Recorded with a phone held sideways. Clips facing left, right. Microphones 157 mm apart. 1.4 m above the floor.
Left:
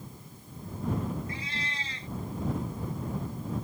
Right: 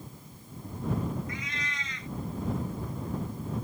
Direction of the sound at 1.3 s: 30° left (ahead or behind).